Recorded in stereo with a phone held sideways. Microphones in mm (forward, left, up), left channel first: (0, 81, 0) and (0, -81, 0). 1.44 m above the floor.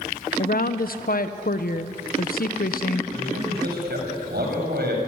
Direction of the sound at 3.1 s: 85° right.